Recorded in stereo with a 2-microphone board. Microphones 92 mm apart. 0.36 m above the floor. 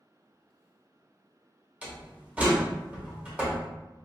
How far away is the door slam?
About 1.1 m.